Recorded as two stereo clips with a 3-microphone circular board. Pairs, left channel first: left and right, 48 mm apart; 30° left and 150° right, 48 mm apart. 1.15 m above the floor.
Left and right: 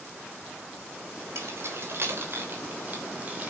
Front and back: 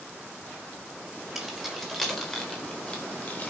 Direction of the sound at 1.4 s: 60° right.